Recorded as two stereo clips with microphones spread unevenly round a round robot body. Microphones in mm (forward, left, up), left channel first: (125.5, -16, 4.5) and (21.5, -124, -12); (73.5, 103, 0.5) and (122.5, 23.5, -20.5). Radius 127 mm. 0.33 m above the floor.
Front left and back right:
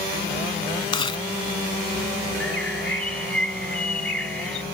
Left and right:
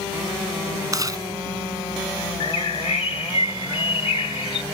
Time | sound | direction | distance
0.9 | chewing | 10° right | ?
2.4 | a bird | 130° left | ?